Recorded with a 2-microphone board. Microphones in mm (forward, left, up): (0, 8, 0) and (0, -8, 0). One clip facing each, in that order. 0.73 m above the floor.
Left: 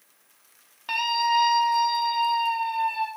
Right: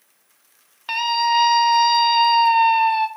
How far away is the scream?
About 1.4 m.